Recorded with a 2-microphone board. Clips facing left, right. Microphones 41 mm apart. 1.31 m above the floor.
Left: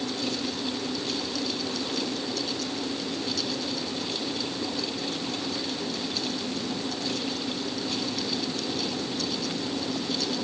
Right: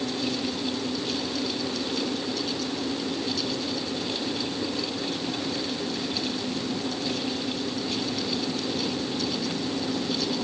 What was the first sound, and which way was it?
Only background noise.